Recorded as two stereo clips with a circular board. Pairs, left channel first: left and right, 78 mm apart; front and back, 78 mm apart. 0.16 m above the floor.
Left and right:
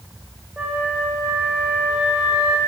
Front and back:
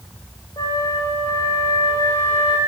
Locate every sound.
0.6 s a flute: 15° right, 2.5 m